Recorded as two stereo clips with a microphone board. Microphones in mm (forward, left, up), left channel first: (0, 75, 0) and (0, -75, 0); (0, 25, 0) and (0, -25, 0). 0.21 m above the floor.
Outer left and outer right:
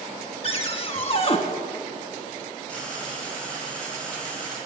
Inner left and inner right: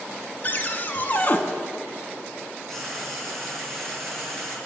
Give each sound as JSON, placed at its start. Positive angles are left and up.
{"t": 0.4, "sound": "a cupboard door", "side_deg": 40, "distance_m": 0.7}
{"t": 2.7, "sound": "frying", "side_deg": 5, "distance_m": 2.5}